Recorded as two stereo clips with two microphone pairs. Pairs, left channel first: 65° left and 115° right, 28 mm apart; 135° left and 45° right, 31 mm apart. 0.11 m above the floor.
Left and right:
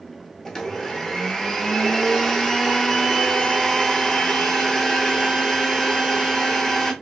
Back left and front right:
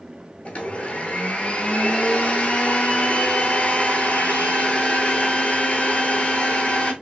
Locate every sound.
0.5 s a blender: 135° left, 0.7 m